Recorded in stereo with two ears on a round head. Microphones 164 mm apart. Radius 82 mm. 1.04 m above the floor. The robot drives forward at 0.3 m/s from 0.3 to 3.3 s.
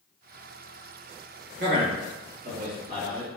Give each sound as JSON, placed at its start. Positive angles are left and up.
{"t": 1.6, "sound": "a man speaking", "side_deg": -40, "distance_m": 1.3}